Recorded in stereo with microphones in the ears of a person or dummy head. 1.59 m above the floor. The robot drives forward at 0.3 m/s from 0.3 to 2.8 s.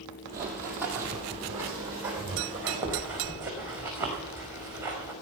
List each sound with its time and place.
0.3 s running footsteps: 10° right (ahead or behind), 2 m